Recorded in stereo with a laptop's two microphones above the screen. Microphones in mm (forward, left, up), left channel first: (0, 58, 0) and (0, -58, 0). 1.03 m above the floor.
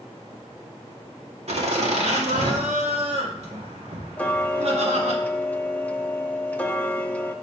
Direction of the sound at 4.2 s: 10° left (ahead or behind).